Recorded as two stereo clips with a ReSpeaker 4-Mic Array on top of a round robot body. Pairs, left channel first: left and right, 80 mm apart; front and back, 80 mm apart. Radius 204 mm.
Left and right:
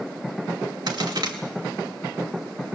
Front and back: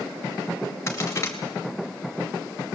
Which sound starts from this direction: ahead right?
A crack, at 0.9 s.